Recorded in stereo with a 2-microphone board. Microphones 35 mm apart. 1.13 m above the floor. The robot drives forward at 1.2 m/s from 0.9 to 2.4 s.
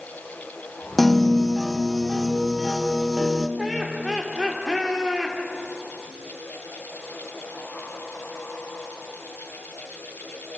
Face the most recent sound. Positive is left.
turn(degrees=0)  # may be behind; listen again after turning